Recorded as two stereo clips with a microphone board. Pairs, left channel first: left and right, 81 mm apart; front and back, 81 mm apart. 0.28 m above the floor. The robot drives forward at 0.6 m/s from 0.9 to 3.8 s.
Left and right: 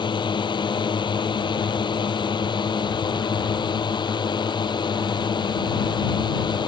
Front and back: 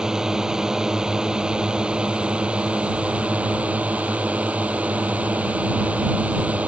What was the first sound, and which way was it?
A drone, 100° left.